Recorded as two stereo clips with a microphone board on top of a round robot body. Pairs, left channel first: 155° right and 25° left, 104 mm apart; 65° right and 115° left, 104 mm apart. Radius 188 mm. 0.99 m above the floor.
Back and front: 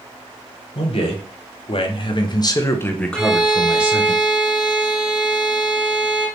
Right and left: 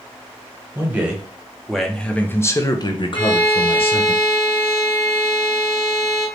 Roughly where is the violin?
Right.